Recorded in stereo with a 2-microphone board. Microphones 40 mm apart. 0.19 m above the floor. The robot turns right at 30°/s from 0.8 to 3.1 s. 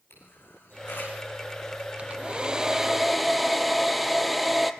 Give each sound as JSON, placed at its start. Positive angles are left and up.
{"t": 0.1, "sound": "a camera shutter", "side_deg": 75, "distance_m": 9.0}
{"t": 2.0, "sound": "a hair dryer", "azimuth_deg": -35, "distance_m": 1.2}